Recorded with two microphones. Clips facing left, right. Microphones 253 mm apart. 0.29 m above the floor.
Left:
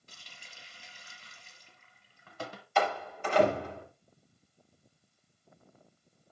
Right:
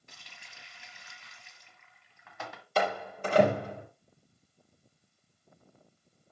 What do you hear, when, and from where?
0.1 s a running tap: 35° left (ahead or behind), 1.5 m
2.8 s a door slam: 35° right (ahead or behind), 5 m